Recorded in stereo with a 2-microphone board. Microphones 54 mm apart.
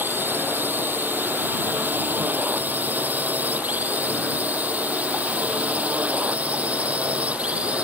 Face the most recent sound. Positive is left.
turn(degrees=-25)  # may be behind; listen again after turning